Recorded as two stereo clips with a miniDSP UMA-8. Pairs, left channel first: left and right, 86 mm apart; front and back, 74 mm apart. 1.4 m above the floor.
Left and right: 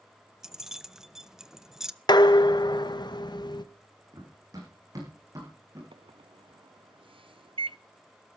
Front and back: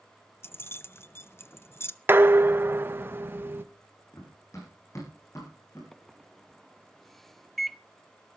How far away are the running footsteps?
About 6 m.